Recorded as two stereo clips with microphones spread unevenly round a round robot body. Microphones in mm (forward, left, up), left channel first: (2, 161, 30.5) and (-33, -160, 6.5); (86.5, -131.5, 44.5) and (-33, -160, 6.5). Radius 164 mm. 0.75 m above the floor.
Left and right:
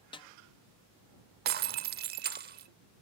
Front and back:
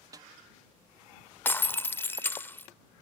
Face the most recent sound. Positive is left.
turn(degrees=-40)